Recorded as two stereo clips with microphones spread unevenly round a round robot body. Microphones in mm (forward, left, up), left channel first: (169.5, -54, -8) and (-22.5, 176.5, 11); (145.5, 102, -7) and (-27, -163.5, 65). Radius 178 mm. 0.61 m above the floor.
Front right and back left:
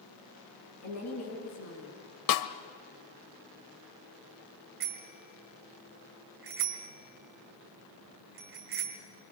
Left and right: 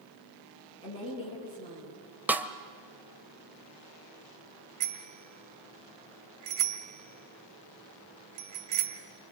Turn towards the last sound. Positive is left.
turn(degrees=-170)